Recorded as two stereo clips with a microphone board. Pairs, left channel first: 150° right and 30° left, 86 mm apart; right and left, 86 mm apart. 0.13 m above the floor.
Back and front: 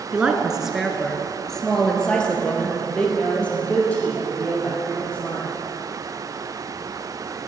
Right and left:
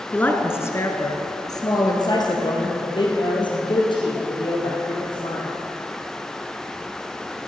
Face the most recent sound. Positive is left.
turn(degrees=-80)